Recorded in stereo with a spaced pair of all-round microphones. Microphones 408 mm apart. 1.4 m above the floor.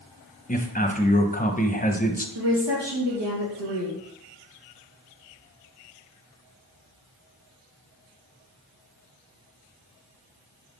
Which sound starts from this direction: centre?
A man speaking, at 0.5 s.